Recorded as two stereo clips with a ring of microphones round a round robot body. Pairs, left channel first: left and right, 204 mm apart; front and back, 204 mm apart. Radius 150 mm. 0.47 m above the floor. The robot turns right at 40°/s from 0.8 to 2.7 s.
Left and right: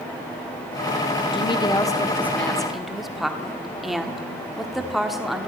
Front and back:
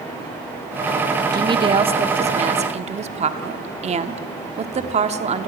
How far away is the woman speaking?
About 1.1 m.